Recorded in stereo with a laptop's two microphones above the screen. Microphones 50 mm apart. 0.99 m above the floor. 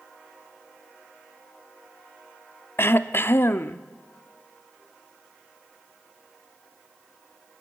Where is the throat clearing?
50° left (ahead or behind), 0.8 m.